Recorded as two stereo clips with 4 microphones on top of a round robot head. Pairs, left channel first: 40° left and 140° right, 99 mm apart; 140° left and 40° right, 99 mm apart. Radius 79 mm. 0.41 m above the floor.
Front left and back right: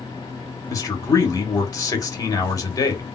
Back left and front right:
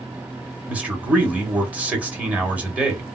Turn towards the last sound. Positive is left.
turn(degrees=25)